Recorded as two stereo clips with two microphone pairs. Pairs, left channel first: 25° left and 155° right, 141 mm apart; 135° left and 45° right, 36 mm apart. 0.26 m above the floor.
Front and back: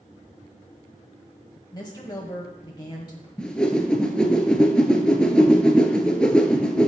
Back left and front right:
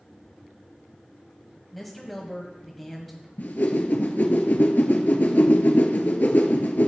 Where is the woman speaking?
55° left, 1.2 m.